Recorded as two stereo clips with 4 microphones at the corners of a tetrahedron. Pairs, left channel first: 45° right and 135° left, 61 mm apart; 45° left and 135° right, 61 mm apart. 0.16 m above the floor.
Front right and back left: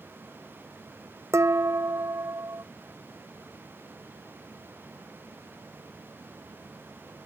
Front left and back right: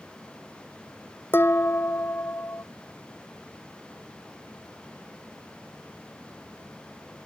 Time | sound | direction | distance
1.3 | dishes clattering | 95° left | ?